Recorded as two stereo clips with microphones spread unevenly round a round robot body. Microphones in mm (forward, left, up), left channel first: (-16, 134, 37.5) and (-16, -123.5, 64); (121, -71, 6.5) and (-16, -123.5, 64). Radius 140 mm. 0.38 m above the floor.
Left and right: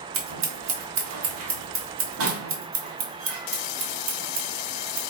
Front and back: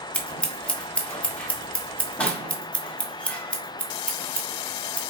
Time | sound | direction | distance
0.1 | scissors | 50° right | 1.6 m